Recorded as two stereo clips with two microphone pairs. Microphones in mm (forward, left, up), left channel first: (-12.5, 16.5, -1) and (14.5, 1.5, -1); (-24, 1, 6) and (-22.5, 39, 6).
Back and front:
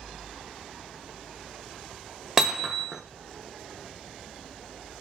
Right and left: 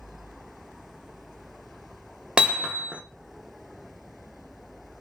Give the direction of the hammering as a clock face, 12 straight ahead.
11 o'clock.